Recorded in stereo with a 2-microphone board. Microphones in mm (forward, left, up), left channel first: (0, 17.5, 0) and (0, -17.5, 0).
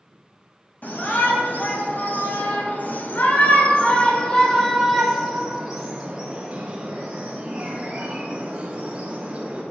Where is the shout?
60° left (ahead or behind), 3.5 m; by 9.6 s 30° right (ahead or behind), 5.5 m.